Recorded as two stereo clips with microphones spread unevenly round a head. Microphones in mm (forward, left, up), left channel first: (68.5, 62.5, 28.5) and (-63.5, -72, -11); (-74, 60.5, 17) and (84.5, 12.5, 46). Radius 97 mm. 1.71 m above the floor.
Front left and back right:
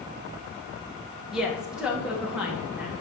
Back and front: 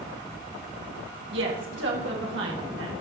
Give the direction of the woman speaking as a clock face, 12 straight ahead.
1 o'clock.